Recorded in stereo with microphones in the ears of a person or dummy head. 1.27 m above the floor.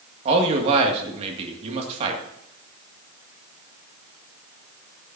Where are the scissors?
No scissors in this recording.